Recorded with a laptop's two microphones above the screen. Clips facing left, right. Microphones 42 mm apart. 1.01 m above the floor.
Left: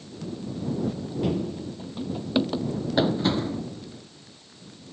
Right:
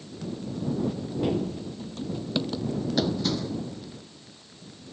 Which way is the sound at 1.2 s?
5° right (ahead or behind).